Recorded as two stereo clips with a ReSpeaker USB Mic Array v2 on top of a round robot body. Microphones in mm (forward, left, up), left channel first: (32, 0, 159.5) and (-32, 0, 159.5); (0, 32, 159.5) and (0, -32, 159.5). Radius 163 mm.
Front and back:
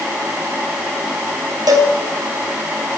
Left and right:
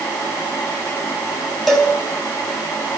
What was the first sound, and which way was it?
A cowbell, straight behind.